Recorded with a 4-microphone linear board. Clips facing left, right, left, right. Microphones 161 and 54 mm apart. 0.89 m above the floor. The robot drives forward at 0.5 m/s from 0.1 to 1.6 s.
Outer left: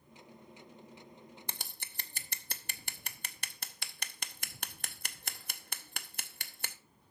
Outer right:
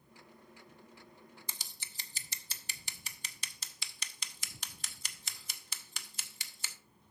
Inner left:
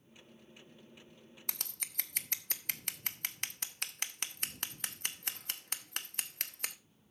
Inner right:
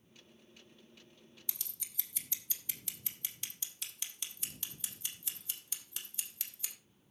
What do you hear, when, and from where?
1.5 s scissors: 60° left (ahead or behind), 0.7 m; by 6.8 s 55° left (ahead or behind), 0.7 m